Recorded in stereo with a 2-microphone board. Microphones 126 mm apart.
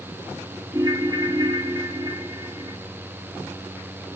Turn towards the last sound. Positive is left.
turn(degrees=-30)  # may be behind; listen again after turning